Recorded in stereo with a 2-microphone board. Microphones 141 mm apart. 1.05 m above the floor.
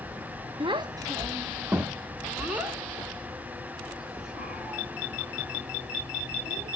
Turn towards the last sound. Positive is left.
turn(degrees=0)  # may be behind; listen again after turning